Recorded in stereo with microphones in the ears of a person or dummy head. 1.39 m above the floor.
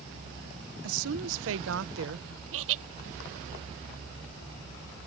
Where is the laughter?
85° right.